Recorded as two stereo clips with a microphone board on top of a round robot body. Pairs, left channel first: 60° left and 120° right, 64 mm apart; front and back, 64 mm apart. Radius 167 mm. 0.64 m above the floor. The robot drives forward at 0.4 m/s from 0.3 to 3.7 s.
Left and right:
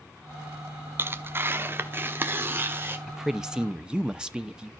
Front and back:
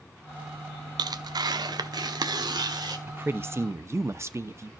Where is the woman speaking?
160° left, 0.9 m; by 4.7 s 165° left, 1.0 m.